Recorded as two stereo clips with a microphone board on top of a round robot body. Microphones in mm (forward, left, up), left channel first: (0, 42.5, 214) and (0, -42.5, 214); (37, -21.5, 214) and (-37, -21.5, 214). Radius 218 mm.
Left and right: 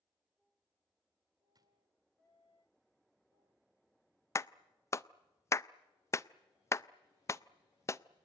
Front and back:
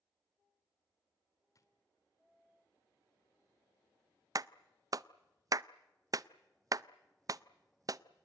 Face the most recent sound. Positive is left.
turn(degrees=145)